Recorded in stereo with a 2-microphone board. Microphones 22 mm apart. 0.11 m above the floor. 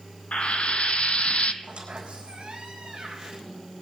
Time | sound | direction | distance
0.3 | frying | 75° left (ahead or behind) | 0.8 m
1.6 | a squeak | 60° right (ahead or behind) | 4 m